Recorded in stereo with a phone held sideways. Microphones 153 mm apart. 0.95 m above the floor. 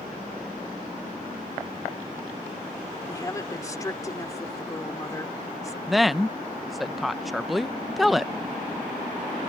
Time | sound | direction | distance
3.1 | a woman speaking | 20° left (ahead or behind) | ?
5.9 | a woman speaking | centre (ahead or behind) | ?